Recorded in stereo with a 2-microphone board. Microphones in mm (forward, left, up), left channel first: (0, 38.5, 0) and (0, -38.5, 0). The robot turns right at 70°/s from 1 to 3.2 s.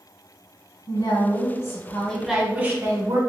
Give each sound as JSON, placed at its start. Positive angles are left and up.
{"t": 0.9, "sound": "a woman speaking", "azimuth_deg": 95, "distance_m": 1.9}